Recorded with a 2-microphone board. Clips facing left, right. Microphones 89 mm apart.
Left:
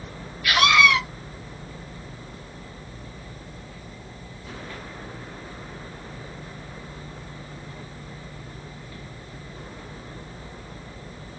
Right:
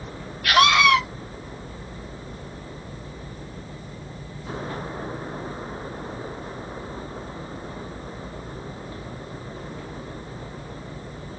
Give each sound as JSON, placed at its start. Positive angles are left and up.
{"t": 0.4, "sound": "a scream", "side_deg": -60, "distance_m": 1.4}